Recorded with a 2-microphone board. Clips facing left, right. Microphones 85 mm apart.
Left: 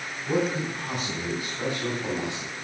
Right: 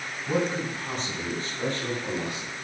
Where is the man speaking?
5° right (ahead or behind), 5.5 m; by 2.5 s 25° left (ahead or behind), 3.5 m.